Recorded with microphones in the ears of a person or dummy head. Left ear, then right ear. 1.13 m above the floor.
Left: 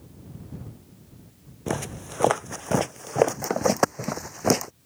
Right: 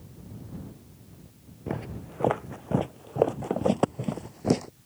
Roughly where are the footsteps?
Left.